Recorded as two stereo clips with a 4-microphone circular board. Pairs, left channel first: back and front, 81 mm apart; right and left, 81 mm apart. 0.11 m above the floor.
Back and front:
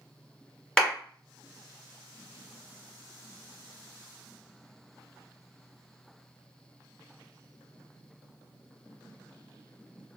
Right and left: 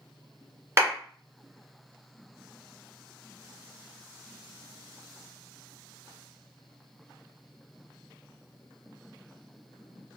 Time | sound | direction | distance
0.8 | a clap | 100° left | 1.4 m